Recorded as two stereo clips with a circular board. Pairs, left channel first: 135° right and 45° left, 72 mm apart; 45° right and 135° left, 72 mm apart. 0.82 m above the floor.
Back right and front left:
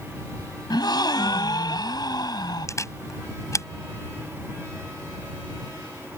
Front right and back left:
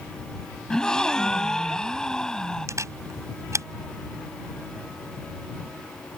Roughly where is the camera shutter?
Behind.